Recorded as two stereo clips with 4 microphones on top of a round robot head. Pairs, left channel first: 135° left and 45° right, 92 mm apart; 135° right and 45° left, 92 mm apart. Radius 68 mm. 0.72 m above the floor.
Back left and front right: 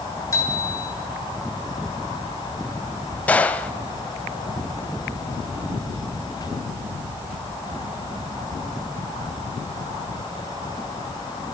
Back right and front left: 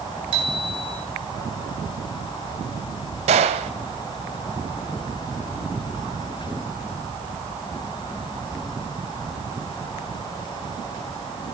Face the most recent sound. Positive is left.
turn(degrees=60)